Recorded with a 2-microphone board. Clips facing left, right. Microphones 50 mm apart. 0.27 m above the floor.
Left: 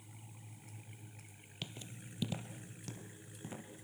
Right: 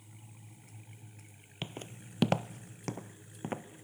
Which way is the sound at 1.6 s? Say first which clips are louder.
Right 5 dB; 30° right (ahead or behind).